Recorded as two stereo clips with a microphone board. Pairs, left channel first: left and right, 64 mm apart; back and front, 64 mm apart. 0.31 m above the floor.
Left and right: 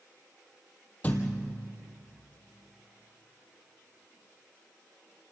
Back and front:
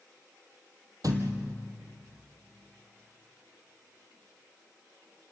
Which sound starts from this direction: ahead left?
A thud, at 1.0 s.